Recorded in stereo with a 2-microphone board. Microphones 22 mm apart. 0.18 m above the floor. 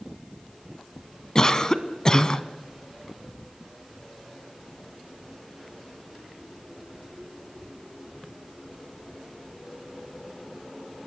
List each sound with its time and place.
1.4 s a cough: 30° left (ahead or behind), 1.3 m